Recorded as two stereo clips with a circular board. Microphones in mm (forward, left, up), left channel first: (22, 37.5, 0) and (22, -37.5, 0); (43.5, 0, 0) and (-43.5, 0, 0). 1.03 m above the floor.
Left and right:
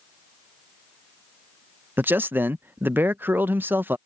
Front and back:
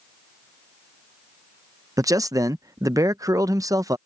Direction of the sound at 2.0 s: 145° right.